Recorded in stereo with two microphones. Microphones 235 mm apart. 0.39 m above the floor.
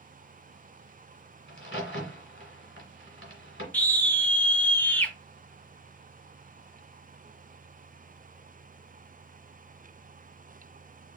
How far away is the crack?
About 1.8 m.